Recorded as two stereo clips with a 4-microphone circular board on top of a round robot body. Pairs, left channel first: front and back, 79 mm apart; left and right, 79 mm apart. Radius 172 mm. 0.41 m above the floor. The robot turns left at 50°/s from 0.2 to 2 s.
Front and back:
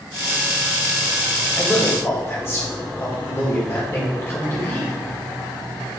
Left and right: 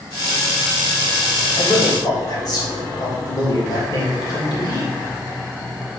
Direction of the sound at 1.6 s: 80° left.